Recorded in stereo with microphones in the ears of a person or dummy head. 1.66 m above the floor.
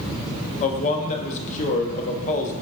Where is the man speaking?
40° left (ahead or behind), 0.6 m.